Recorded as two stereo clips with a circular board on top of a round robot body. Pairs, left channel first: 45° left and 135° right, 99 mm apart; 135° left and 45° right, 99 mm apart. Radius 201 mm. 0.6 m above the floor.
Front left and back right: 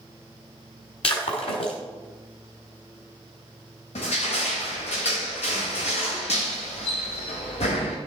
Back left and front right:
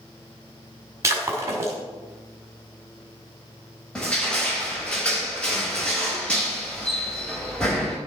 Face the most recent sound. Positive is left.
turn(degrees=55)